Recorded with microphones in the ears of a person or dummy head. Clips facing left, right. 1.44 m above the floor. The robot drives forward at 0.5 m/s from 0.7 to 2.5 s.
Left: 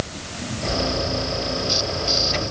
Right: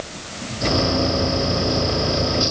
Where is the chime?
No chime in this recording.